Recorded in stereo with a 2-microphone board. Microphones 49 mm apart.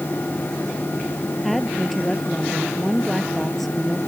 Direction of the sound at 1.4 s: Centre (ahead or behind).